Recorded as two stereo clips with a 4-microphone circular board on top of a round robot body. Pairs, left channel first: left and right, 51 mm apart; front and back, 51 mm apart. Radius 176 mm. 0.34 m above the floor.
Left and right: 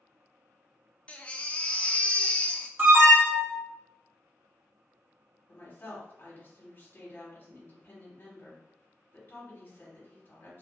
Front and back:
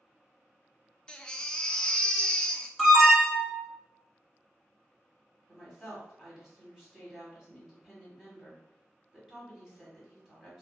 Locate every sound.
1.1 s a baby crying: 55° left, 0.5 m
2.8 s an alarm: 90° right, 1.6 m
5.5 s a woman speaking: 105° left, 1.2 m